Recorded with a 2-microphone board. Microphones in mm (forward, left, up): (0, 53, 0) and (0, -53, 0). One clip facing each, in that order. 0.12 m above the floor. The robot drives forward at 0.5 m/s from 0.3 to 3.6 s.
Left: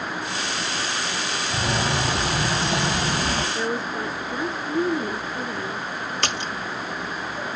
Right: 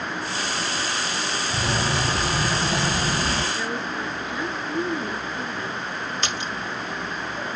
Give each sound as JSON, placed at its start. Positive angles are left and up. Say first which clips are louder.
{"t": 1.5, "sound": "a bird", "louder": "left 1 dB", "side_deg": 15, "distance_m": 3.5}
{"t": 3.5, "sound": "a woman speaking", "louder": "left 2 dB", "side_deg": 40, "distance_m": 1.4}
{"t": 6.2, "sound": "a splash", "louder": "left 1 dB", "side_deg": 65, "distance_m": 0.9}